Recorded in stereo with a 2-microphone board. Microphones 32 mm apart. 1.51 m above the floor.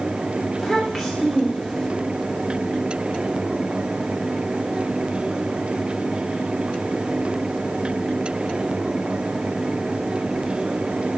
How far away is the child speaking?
About 3 m.